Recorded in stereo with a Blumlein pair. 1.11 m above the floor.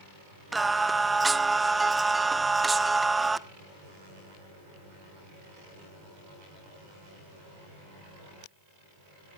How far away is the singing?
About 0.6 m.